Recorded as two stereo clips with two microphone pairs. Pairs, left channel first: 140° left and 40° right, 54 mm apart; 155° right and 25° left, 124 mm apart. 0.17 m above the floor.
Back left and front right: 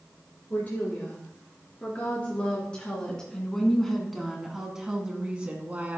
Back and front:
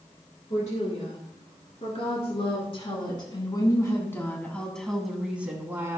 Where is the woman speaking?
165° right, 3 m; by 6.0 s 25° right, 1.7 m.